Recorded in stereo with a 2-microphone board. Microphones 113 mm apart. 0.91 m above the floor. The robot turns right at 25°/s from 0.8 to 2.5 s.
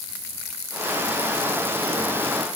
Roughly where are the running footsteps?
I don't hear running footsteps.